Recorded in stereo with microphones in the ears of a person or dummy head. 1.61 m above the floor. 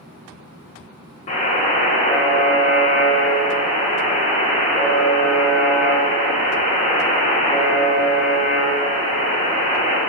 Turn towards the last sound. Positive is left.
turn(degrees=35)  # may be behind; listen again after turning